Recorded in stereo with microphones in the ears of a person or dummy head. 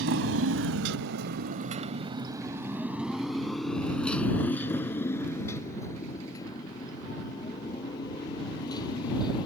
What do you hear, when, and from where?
0.0 s a motorcycle: 75° right (ahead or behind); by 9.5 s 30° left (ahead or behind)